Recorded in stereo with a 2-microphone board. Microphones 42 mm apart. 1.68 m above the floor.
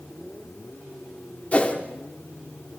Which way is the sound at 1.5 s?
35° left (ahead or behind).